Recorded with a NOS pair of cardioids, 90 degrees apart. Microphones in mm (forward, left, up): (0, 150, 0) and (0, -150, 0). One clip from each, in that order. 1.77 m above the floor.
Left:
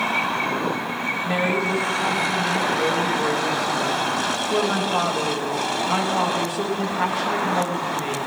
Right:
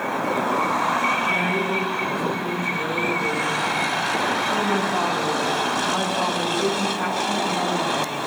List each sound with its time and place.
1.2 s a woman speaking: 65° left, 9 m